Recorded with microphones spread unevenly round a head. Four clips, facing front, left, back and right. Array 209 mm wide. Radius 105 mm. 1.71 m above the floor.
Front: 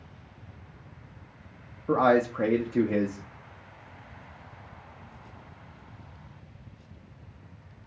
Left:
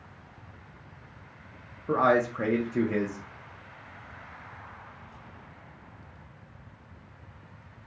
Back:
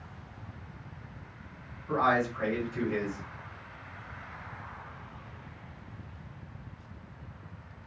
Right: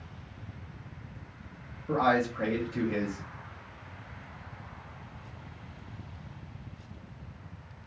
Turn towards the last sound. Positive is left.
turn(degrees=20)